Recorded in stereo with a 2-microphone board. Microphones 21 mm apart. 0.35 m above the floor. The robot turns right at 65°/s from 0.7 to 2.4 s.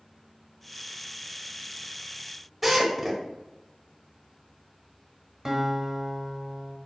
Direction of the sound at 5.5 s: 20° right (ahead or behind).